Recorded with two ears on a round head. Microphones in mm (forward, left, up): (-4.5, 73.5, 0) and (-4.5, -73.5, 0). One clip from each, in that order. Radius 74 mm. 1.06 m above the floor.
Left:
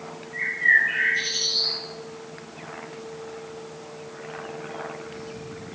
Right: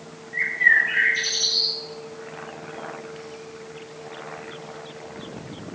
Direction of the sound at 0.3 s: 30° right (ahead or behind).